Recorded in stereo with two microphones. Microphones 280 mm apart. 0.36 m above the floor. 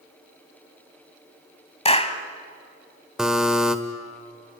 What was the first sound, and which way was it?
A clap, 20° left (ahead or behind).